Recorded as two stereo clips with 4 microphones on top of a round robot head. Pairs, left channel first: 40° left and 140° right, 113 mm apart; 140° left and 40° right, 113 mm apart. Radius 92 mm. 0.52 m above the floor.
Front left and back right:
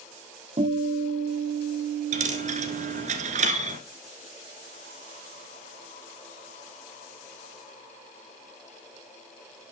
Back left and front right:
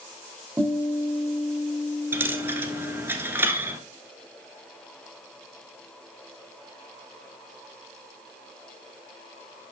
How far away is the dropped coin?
About 1.3 m.